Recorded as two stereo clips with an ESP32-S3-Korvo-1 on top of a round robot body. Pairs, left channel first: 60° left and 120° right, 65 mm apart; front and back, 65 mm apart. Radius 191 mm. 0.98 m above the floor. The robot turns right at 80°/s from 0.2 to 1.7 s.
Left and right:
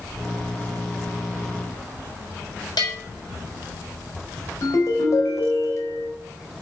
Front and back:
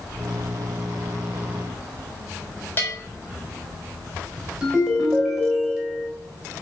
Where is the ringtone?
100° left, 4 m.